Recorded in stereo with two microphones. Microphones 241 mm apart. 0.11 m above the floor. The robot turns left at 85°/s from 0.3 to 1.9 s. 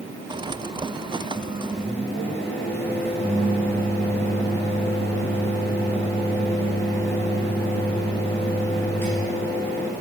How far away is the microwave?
About 2.5 m.